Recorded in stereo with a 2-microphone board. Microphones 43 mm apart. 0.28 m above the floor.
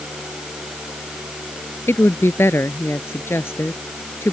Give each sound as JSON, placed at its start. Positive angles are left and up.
{"t": 1.9, "sound": "a woman speaking", "side_deg": 75}